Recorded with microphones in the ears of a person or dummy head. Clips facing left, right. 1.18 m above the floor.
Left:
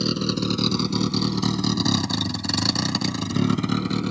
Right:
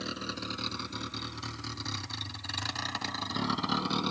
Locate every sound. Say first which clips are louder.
0.0 s a vehicle: left 15 dB; 55° left (ahead or behind); by 4.1 s 30° left (ahead or behind)